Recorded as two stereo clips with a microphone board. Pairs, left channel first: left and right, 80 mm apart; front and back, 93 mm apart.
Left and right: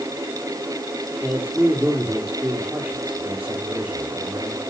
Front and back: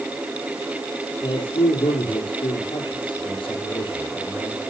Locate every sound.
1.2 s a man speaking: 25° right, 6 m